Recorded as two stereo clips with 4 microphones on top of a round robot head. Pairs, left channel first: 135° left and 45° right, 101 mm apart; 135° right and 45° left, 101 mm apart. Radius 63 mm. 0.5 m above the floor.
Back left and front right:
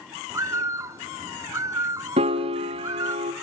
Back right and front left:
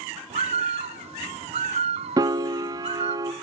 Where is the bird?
20° left, 1.4 m.